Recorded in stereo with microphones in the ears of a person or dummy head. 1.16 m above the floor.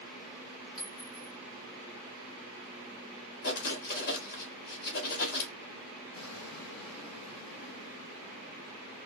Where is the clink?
45° left (ahead or behind), 0.6 m.